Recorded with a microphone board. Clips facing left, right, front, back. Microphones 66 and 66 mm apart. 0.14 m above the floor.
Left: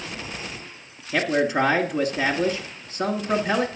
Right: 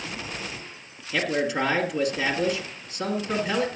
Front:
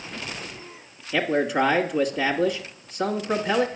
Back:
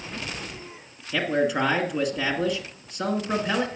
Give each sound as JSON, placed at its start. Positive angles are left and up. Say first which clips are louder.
{"t": 1.1, "sound": "a man speaking", "louder": "left 4 dB, front 1 dB", "azimuth_deg": 90, "distance_m": 1.5}